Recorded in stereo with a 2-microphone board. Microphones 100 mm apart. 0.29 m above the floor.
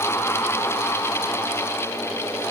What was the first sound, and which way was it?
Only background noise.